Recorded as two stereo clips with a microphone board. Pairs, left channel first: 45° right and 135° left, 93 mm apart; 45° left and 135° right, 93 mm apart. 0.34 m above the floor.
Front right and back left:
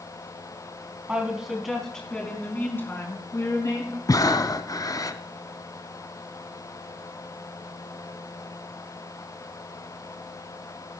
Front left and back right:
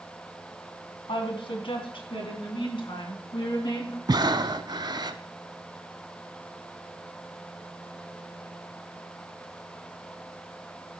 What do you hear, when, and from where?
1.1 s a woman speaking: 60° left, 3 m; by 4.0 s 5° left, 4.5 m
4.1 s breathing: 95° right, 0.8 m